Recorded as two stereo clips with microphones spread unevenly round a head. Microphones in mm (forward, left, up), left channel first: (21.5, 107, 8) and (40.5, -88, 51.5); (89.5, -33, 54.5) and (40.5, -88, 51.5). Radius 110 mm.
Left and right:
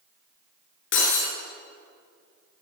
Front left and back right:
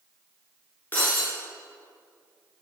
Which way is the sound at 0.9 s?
125° left.